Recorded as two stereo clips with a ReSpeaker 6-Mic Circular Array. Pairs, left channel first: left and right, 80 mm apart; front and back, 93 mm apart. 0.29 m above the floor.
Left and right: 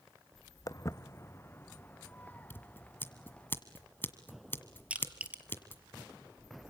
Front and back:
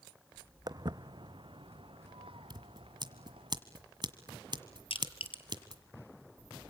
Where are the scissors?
150° left, 1.6 m.